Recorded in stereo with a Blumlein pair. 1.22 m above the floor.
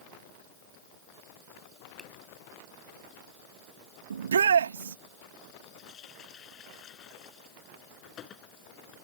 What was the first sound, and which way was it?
A finger snap, 5° left.